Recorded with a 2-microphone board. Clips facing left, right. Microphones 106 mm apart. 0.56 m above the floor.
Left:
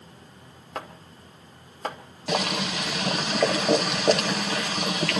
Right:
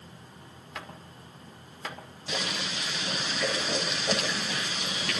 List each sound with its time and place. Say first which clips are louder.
0.8 s chopping: left 6 dB; 45° left (ahead or behind), 2.0 m
2.3 s boiling: left 8 dB; 70° left (ahead or behind), 1.7 m